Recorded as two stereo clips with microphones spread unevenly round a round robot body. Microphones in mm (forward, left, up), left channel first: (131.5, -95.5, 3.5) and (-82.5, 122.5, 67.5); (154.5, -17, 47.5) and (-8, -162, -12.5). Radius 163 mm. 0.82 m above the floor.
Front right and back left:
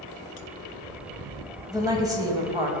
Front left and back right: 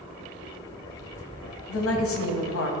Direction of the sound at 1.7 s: 50° left.